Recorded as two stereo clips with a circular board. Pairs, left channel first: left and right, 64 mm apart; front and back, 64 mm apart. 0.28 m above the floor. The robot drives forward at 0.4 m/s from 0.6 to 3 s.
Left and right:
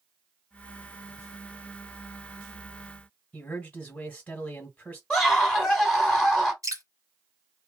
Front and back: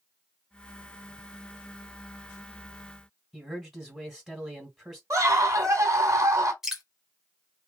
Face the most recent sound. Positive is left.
turn(degrees=-95)